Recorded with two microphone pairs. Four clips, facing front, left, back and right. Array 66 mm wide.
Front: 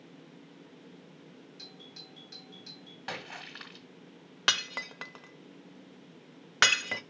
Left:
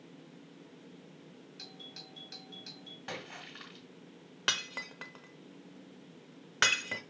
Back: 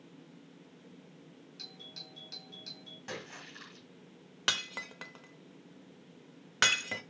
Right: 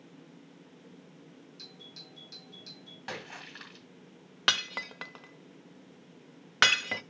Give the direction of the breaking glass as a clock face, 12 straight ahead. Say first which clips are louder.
Right 5 dB, front 4 dB; 1 o'clock.